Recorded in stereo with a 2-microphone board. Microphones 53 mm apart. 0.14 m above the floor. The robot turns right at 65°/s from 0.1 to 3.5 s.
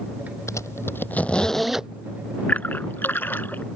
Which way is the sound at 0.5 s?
75° left (ahead or behind).